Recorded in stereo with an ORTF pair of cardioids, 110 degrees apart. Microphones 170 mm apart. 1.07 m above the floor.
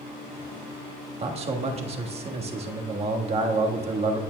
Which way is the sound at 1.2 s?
35° right.